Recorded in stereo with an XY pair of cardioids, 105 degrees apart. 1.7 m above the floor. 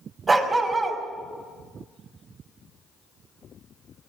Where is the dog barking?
35° right, 5 m.